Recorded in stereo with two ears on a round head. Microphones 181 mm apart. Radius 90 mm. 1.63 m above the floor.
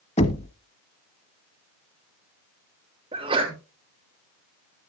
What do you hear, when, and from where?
0.2 s knocking: 35° left (ahead or behind), 1.2 m
3.1 s a sneeze: 30° right (ahead or behind), 3.5 m